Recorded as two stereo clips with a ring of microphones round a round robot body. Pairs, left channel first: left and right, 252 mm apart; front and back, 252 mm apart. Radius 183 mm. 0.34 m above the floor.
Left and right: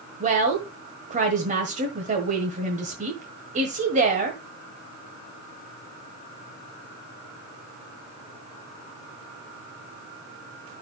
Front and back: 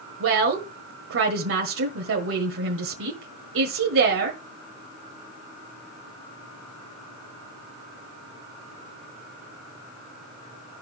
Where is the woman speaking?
150° right, 1.4 m.